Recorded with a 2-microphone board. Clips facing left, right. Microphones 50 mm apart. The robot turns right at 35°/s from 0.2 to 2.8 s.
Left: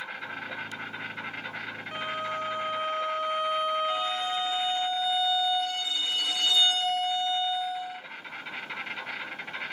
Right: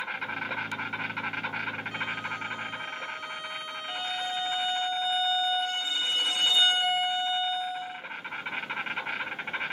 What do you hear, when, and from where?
0.0 s an insect: 125° right, 1.9 m; by 9.7 s 30° right, 1.9 m
1.9 s a violin: 30° left, 1.0 m; by 4.9 s 60° left, 1.0 m
3.9 s a violin: 25° right (ahead or behind), 1.1 m